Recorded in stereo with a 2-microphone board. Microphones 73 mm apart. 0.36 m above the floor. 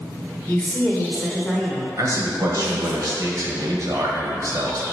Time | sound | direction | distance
0.5 | a woman speaking | 25° left (ahead or behind) | 1.4 m
2.0 | a man speaking | 50° right (ahead or behind) | 1.3 m